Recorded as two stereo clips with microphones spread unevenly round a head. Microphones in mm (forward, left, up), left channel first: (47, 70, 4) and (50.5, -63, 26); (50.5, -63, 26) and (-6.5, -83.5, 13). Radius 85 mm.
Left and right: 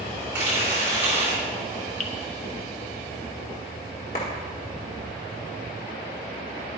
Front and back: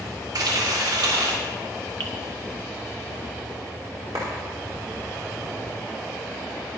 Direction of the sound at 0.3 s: 165° right.